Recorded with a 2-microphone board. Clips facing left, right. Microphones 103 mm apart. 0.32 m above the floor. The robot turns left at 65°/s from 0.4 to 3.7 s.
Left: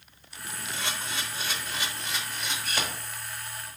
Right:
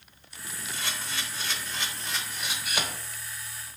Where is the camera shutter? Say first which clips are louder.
Left 2 dB; 20° left (ahead or behind), 0.9 m; by 2.9 s 15° right (ahead or behind), 0.9 m.